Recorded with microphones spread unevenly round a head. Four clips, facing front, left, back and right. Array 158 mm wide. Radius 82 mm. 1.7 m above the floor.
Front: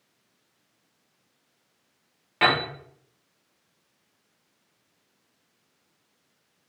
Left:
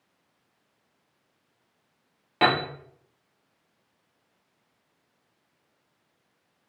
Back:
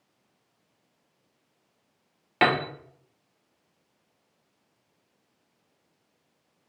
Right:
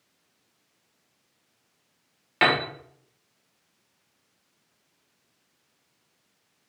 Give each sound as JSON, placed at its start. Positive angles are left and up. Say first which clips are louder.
{"t": 2.4, "sound": "a piano", "louder": "even, even", "azimuth_deg": 160, "distance_m": 0.6}